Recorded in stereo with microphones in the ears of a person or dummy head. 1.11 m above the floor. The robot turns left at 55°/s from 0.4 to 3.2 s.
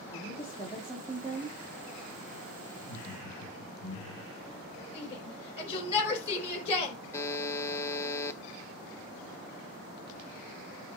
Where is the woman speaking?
25° left, 2 m; by 1.6 s 40° right, 2 m.